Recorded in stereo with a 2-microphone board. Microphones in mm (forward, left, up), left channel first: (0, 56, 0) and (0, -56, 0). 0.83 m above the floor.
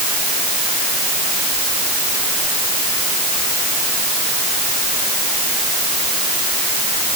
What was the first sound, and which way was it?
Only background noise.